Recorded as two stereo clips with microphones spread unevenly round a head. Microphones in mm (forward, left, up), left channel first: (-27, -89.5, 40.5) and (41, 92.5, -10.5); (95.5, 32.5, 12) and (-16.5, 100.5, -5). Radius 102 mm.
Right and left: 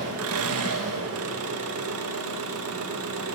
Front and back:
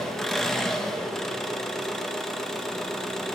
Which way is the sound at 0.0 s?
55° left.